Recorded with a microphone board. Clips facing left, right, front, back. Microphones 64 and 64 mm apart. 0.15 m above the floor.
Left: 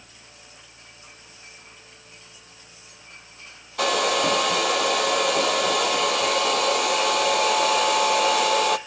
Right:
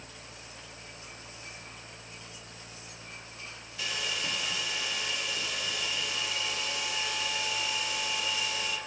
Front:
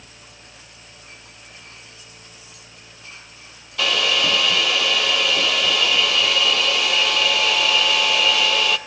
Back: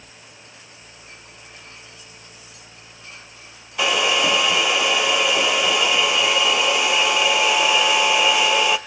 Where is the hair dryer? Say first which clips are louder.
Left 15 dB, back 2 dB; 110° left, 0.8 m.